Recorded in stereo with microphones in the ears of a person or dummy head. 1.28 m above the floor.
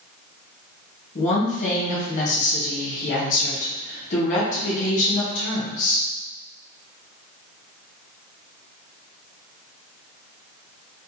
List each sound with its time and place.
1.1 s a woman speaking: 40° left (ahead or behind), 0.8 m